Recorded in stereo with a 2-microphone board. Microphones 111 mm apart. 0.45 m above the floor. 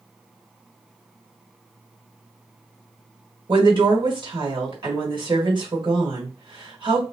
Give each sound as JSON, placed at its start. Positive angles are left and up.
{"t": 3.5, "sound": "a woman speaking", "side_deg": -50, "distance_m": 1.7}